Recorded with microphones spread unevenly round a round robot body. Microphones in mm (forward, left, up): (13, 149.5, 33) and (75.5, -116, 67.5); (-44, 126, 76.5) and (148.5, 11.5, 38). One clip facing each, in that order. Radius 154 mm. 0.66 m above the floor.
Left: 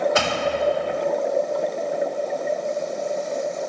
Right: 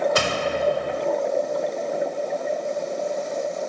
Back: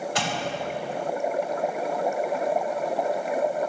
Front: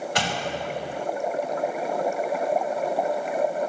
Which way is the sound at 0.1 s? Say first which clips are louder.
Left 1 dB, even; 25° right.